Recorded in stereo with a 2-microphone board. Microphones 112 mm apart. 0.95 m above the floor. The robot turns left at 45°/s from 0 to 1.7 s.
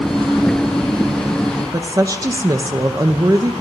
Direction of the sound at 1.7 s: 30° right (ahead or behind).